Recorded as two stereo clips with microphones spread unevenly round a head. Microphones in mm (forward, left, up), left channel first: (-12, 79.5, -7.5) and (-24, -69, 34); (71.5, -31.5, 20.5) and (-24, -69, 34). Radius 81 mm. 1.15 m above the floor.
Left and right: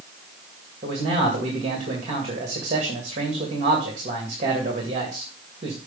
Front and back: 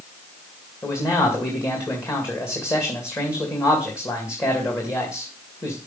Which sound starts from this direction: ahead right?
A man speaking, at 0.8 s.